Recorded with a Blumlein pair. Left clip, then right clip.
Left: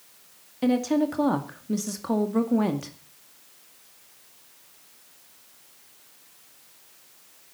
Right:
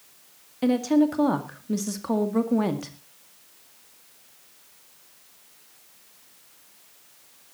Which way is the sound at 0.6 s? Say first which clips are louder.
Right 2 dB; 5° right.